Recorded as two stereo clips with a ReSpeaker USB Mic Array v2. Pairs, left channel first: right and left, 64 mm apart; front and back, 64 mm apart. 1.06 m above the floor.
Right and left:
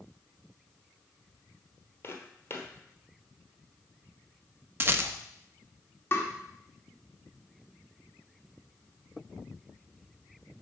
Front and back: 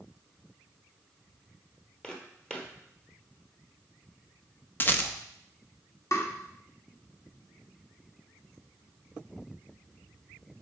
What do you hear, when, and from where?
2.0 s footsteps: 70° right, 1.3 m
4.8 s a rattle: 50° left, 0.6 m
6.1 s tapping: 35° right, 1.5 m